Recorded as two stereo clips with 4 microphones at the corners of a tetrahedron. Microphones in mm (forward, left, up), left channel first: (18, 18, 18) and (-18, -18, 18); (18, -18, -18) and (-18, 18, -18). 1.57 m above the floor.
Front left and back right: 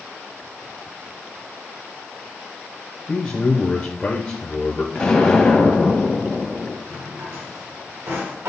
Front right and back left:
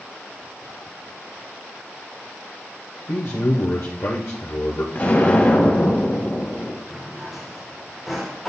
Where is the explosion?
25° right, 1.7 m.